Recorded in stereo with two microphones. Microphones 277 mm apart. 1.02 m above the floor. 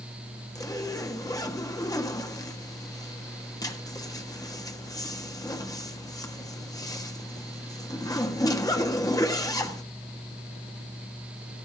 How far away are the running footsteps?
No running footsteps in this recording.